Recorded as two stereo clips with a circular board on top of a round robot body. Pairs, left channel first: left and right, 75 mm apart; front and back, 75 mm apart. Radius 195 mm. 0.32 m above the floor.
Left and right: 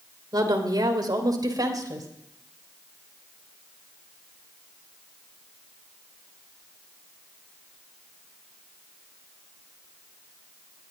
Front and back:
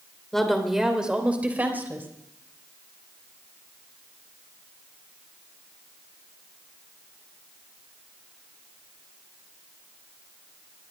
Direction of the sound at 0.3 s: 85° right.